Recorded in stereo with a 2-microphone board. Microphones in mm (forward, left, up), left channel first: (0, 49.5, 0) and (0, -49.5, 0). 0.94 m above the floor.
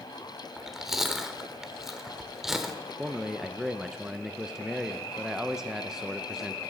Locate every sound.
0.6 s chewing: 5° right (ahead or behind), 1.2 m
3.0 s a man speaking: 5° right (ahead or behind), 0.6 m